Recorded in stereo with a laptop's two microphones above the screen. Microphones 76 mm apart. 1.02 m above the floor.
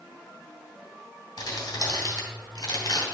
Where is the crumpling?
75° left (ahead or behind), 3 m.